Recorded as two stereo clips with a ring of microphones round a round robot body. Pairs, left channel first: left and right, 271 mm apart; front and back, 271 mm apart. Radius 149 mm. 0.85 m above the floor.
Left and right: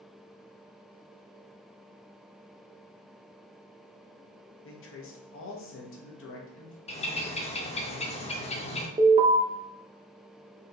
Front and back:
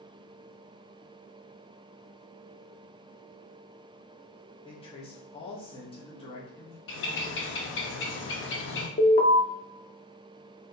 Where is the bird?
30° left, 0.7 m.